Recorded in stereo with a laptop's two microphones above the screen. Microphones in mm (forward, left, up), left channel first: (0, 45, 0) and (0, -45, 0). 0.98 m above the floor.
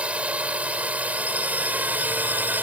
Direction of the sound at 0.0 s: 15° right (ahead or behind).